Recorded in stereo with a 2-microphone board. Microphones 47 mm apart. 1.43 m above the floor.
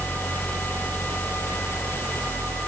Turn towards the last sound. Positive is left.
No sound to turn to.